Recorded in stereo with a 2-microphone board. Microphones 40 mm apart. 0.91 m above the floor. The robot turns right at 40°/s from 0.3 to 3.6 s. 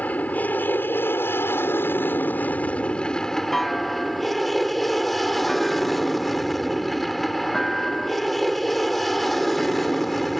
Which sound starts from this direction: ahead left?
An aircraft, at 0.0 s.